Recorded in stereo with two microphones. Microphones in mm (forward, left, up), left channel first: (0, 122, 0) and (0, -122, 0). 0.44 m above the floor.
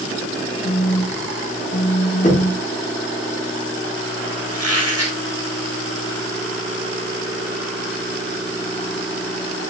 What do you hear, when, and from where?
0.6 s a phone buzzing: 55° left (ahead or behind), 0.9 m
2.2 s knocking: 30° left (ahead or behind), 3.5 m
4.5 s a squeak: 75° right (ahead or behind), 6 m